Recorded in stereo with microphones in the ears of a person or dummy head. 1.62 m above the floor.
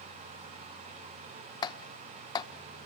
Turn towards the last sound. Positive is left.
turn(degrees=30)  # may be behind; listen again after turning